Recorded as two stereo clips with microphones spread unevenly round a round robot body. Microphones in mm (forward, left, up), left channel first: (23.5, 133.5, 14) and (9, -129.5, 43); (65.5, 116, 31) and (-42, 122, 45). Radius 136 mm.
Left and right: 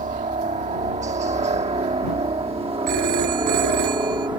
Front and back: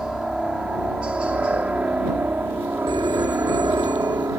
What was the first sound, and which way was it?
A helicopter, 90° right.